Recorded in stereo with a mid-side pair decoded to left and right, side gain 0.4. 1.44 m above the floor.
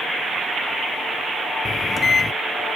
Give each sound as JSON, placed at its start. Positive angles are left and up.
{"t": 1.6, "sound": "a microwave", "azimuth_deg": 40}